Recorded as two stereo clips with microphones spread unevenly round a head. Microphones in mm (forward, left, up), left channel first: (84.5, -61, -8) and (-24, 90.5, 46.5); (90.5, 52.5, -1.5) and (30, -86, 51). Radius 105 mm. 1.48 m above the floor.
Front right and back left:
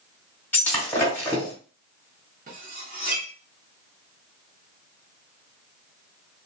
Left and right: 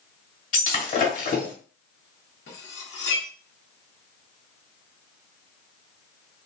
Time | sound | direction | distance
0.5 | breaking glass | 50° left | 1.4 m
2.5 | cutlery clinking | 110° left | 0.9 m